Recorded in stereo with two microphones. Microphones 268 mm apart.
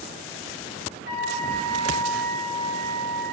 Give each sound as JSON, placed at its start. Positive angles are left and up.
{"t": 1.1, "sound": "a flute", "side_deg": 45, "distance_m": 4.5}